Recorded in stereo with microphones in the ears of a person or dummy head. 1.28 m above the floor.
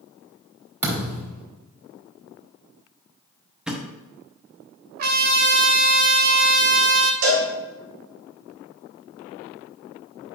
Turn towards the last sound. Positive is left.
turn(degrees=-75)  # may be behind; listen again after turning